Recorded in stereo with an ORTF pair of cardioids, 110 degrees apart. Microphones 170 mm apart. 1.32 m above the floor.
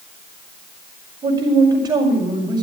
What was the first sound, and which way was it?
A man speaking, 25° right.